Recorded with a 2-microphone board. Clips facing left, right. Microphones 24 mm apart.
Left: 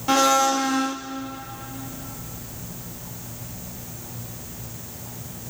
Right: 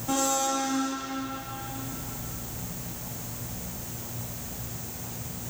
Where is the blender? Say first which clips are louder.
Left 8 dB; 65° left (ahead or behind), 1.3 m.